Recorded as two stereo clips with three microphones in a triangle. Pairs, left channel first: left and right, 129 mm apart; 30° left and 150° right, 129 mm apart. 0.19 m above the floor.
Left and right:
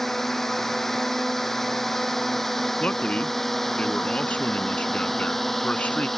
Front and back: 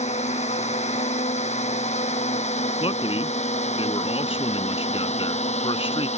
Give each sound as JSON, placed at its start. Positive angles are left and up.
{"t": 0.0, "sound": "a drone", "azimuth_deg": 0}
{"t": 2.8, "sound": "a man speaking", "azimuth_deg": 15}